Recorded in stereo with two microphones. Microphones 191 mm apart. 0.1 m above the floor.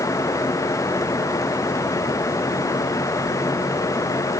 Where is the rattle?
No rattle in this recording.